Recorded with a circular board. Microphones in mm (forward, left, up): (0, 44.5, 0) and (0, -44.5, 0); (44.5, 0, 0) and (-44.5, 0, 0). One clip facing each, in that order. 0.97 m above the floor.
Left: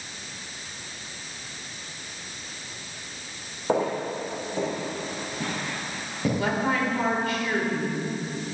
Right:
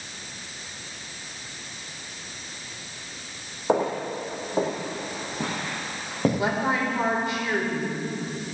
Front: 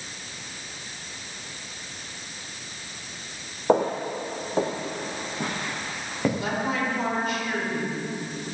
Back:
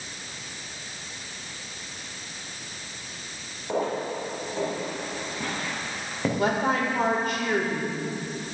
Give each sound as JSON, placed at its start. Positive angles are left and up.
{"t": 3.7, "sound": "footsteps", "azimuth_deg": -20, "distance_m": 2.5}
{"t": 6.4, "sound": "a woman speaking", "azimuth_deg": -160, "distance_m": 3.5}